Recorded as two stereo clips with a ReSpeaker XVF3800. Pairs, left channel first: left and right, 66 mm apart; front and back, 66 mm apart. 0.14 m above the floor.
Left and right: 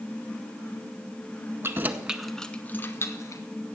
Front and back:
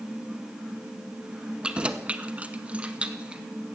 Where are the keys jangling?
110° right, 0.9 m; by 3.4 s 110° left, 1.3 m.